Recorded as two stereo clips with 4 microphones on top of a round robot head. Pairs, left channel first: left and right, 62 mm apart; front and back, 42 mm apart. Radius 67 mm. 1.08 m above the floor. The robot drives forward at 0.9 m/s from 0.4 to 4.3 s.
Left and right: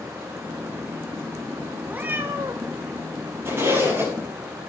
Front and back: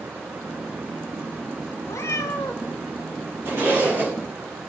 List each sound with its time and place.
1.9 s a cat meowing: 20° right, 1.1 m; by 2.7 s 55° right, 0.5 m
3.5 s a zipper: 145° right, 9 m